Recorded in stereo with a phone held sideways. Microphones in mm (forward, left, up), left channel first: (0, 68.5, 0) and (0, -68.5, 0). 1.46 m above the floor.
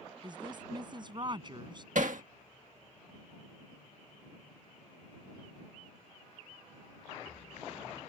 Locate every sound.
0.2 s a woman speaking: 35° right (ahead or behind)
1.9 s hammering: 65° right (ahead or behind)